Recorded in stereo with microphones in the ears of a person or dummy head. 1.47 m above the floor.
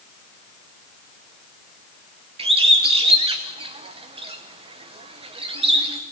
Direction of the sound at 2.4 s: 30° right (ahead or behind).